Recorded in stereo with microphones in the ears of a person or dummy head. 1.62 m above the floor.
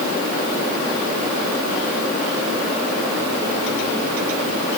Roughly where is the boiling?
No boiling in this recording.